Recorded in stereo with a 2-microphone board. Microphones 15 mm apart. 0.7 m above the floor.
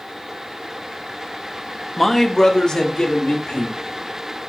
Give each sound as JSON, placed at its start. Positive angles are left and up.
{"t": 2.0, "sound": "a man speaking", "side_deg": 10, "distance_m": 0.5}